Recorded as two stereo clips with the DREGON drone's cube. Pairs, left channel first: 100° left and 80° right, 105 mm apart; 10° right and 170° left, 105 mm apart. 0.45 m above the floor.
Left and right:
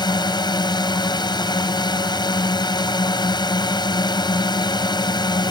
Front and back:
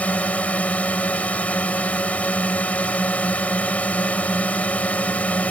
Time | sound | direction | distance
0.0 | a drone | 65° left | ?